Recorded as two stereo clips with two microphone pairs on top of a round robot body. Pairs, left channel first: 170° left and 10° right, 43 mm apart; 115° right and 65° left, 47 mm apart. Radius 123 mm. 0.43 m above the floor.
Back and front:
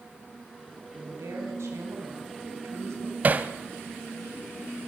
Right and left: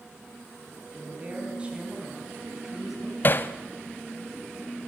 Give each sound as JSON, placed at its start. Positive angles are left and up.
{"t": 0.9, "sound": "a woman speaking", "azimuth_deg": 5, "distance_m": 5.5}
{"t": 3.2, "sound": "hammering", "azimuth_deg": -65, "distance_m": 0.7}